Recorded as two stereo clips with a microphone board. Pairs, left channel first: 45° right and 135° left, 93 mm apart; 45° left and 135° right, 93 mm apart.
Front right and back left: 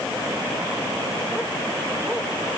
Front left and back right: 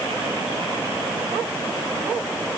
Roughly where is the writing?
No writing in this recording.